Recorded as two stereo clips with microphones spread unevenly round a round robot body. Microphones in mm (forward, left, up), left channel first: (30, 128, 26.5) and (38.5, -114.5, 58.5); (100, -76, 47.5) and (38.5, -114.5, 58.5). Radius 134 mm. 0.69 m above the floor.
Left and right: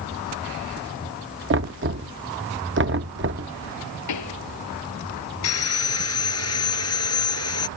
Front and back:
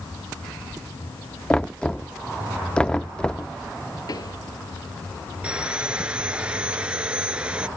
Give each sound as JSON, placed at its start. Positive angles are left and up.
{"t": 1.5, "sound": "knocking", "azimuth_deg": -45}
{"t": 4.1, "sound": "a pop", "azimuth_deg": 90}
{"t": 5.4, "sound": "sawing", "azimuth_deg": 130}